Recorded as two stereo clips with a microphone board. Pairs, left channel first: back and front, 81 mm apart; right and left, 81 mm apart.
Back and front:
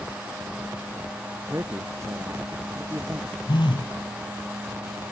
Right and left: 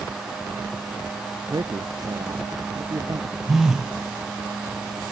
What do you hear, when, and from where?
1.5 s a man speaking: 55° left
3.5 s a phone buzzing: 175° left